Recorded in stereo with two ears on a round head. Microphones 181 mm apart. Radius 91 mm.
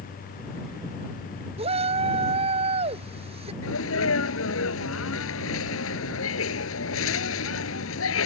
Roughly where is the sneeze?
Left.